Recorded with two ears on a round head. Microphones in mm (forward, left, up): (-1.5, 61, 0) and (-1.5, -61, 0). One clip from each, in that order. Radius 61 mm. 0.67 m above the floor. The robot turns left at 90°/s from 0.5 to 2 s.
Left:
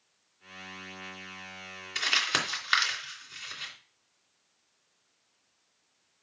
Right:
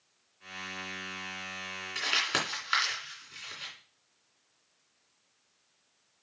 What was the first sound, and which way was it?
Crumpling, 30° left (ahead or behind).